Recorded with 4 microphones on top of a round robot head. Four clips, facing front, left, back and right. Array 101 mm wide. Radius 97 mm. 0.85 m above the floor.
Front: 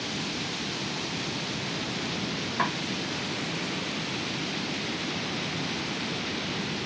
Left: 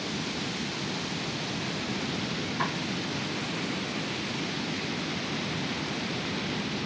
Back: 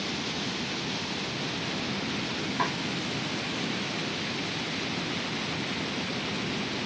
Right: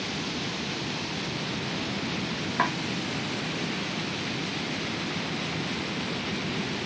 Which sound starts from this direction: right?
Chopping, at 2.6 s.